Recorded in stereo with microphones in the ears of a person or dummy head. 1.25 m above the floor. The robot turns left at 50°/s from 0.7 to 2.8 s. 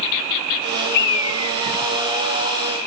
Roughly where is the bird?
Left.